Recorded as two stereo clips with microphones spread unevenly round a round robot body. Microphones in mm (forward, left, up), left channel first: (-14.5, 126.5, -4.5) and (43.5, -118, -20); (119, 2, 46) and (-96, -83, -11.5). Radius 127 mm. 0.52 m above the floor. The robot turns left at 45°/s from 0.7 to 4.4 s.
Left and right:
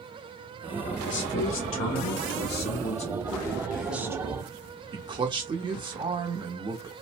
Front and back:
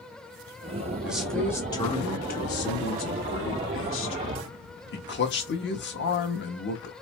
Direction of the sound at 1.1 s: 135° left.